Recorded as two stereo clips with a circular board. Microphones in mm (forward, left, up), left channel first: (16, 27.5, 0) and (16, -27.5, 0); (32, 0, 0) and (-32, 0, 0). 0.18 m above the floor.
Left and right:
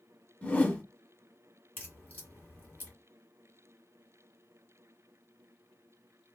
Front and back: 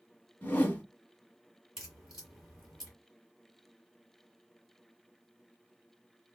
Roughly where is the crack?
Behind left.